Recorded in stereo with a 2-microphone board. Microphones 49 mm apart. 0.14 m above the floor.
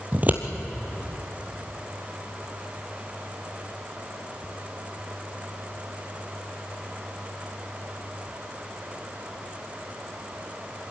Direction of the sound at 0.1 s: 35° right (ahead or behind).